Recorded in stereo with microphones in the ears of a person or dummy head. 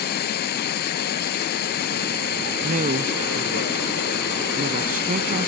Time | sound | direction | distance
0.0 | running water | 50° left (ahead or behind) | ?
2.6 | a woman speaking | 50° right (ahead or behind) | ?